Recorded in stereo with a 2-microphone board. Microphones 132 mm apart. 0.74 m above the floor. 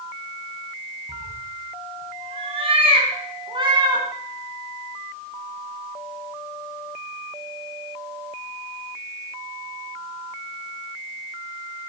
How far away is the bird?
No bird in this recording.